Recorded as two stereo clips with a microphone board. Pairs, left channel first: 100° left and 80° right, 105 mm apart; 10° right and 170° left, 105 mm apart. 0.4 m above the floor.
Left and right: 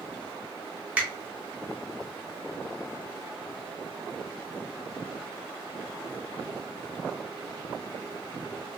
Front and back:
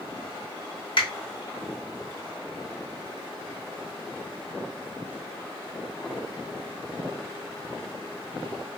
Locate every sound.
1.0 s a finger snap: 10° right, 1.0 m